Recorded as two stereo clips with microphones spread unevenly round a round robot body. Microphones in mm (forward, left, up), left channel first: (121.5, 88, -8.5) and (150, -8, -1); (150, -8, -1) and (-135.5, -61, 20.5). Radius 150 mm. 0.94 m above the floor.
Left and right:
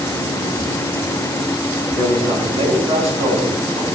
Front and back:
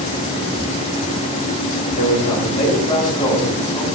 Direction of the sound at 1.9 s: 50° right.